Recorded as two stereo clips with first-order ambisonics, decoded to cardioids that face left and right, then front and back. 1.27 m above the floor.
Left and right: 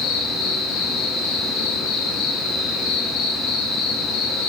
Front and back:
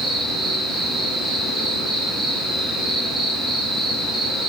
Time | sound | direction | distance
0.0 | an insect | 110° left | 5 m